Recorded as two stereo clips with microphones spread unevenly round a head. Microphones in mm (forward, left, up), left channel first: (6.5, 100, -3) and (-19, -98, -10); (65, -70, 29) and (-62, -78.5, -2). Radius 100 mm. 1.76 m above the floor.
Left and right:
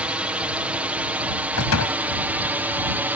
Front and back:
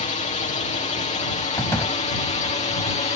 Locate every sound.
0.0 s a drone: 15° right; by 3.1 s 20° right
1.6 s a door slam: 80° left